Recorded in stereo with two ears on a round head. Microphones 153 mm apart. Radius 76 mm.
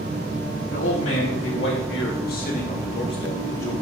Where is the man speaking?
80° left, 3 m; by 3.7 s 15° left (ahead or behind), 2.5 m.